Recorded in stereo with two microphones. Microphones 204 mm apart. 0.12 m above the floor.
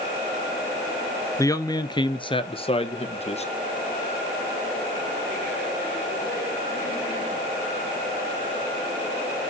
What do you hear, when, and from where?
1.4 s a man speaking: 15° left (ahead or behind), 1.2 m; by 3.5 s 30° left (ahead or behind), 2 m